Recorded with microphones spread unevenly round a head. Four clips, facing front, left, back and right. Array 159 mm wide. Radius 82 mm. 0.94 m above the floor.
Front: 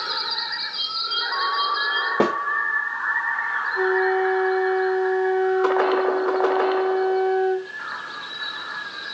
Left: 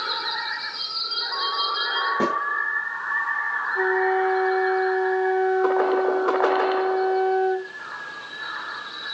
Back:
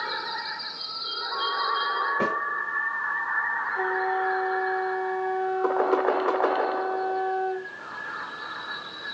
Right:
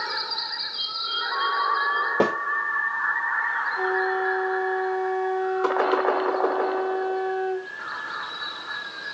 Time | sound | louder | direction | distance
2.2 | a snare drum | right 2 dB, front 10 dB | 25° right | 1.2 m
3.8 | a flute | left 5 dB, front 7 dB | 50° left | 1.5 m